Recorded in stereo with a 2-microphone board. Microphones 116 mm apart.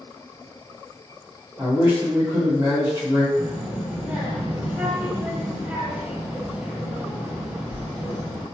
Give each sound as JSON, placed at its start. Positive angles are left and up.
{"t": 1.6, "sound": "a man speaking", "side_deg": -25, "distance_m": 1.7}
{"t": 3.4, "sound": "a child speaking", "side_deg": -15, "distance_m": 0.7}